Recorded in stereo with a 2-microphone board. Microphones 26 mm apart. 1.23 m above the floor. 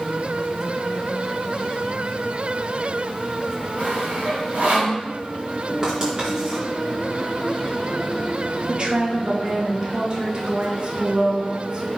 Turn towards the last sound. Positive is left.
turn(degrees=-35)  # may be behind; listen again after turning